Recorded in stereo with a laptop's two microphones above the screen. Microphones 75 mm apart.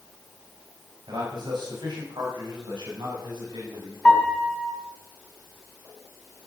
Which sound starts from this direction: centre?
A piano, at 4.0 s.